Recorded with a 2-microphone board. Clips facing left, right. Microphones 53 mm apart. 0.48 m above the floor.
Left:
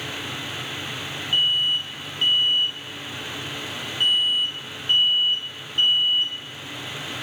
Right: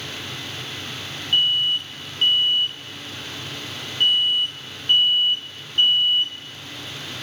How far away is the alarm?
About 5.5 m.